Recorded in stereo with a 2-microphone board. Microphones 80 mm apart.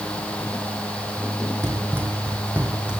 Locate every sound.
1.6 s running footsteps: 35° right (ahead or behind), 2.5 m; by 3.0 s 10° right (ahead or behind), 3 m